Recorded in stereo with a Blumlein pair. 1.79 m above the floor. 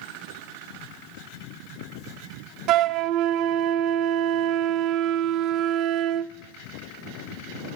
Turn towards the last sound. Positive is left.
turn(degrees=-35)